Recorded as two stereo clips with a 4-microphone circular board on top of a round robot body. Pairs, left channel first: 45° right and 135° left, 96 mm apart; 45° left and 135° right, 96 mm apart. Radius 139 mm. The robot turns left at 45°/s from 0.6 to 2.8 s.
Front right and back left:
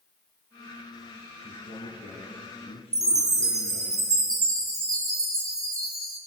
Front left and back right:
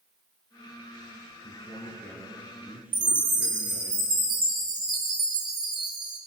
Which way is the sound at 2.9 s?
170° right.